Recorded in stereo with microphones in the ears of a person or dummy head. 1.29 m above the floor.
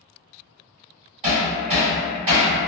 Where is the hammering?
35° right (ahead or behind), 1.6 m.